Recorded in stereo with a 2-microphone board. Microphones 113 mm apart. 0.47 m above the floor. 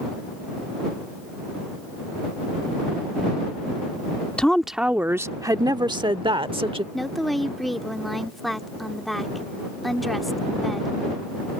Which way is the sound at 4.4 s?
10° left (ahead or behind).